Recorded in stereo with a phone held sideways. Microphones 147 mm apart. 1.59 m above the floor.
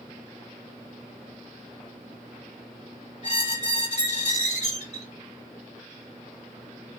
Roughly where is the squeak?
Left.